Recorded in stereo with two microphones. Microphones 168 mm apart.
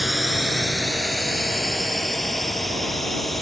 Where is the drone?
Centre (ahead or behind).